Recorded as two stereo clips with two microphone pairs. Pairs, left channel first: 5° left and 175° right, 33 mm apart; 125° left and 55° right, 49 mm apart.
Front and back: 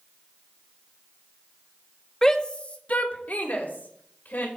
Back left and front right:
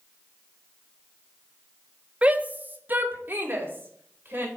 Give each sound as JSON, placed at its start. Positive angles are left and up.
{"t": 2.2, "sound": "a shout", "azimuth_deg": -55, "distance_m": 1.0}